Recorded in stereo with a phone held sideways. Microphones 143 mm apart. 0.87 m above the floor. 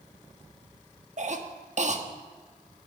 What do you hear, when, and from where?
1.2 s a cough: 55° right (ahead or behind), 1.2 m